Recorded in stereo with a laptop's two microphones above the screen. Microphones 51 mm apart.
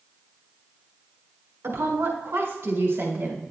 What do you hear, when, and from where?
1.6 s a woman speaking: 55° right (ahead or behind), 3 m; by 3.5 s 45° right (ahead or behind), 4 m